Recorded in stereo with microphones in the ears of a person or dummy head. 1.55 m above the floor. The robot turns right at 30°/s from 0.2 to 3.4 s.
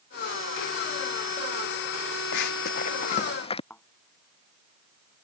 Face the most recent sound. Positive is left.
turn(degrees=5)  # may be behind; listen again after turning